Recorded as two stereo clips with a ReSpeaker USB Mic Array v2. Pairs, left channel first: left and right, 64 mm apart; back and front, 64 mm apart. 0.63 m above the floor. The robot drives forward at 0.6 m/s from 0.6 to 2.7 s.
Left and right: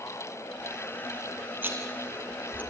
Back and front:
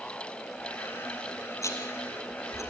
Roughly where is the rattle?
Behind right.